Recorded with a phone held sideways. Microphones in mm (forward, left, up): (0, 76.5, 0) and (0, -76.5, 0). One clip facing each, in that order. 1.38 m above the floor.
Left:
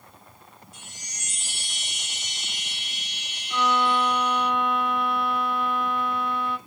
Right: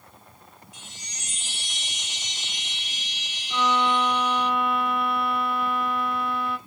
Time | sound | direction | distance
0.7 | a chime | 50° left (ahead or behind) | 2 m
3.5 | a violin | 5° right (ahead or behind) | 0.7 m